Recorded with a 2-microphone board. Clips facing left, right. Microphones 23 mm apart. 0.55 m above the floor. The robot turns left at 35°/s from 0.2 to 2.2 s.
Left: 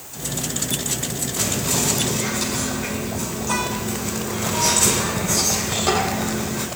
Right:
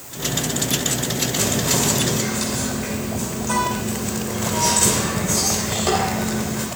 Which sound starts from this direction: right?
Whispering, at 1.4 s.